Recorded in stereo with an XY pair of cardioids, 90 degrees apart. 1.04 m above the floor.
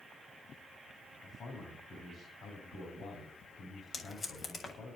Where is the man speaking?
60° left, 8 m.